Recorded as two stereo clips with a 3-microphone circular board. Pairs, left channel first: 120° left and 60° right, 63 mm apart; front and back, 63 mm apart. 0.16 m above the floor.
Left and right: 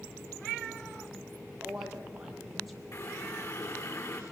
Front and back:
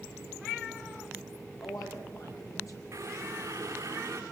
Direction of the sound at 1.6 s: 20° left.